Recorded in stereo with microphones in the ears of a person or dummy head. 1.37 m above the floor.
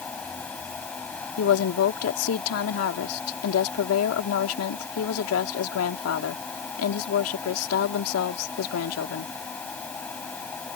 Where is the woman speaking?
90° left.